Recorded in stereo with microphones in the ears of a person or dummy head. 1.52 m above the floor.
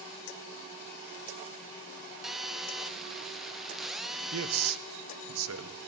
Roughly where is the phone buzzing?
Centre.